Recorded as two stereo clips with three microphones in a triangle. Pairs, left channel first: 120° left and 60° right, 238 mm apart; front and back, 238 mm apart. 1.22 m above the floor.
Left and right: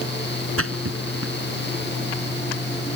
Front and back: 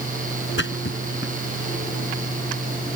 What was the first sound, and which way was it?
A splash, 35° right.